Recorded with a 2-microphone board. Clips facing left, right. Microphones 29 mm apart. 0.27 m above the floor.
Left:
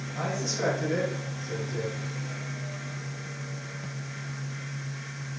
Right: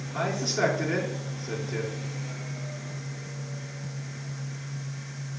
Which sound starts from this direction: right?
A man speaking, at 0.1 s.